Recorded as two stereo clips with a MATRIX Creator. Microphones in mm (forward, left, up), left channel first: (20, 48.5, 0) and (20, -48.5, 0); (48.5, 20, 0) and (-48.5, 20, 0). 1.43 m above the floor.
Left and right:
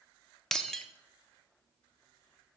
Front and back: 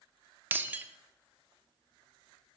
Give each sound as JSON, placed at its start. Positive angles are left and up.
{"t": 0.5, "sound": "breaking glass", "azimuth_deg": 165, "distance_m": 0.6}